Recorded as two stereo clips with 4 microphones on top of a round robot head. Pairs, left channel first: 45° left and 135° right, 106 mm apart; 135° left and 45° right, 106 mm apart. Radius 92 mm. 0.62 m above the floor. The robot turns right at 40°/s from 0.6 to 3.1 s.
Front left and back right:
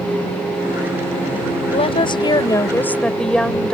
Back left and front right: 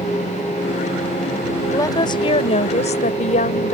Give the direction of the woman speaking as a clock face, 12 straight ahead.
10 o'clock.